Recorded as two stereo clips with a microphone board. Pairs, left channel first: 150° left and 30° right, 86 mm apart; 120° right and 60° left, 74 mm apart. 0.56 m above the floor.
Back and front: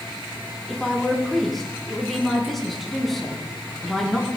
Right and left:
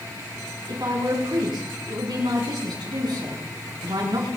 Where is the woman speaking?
60° left, 6.5 m.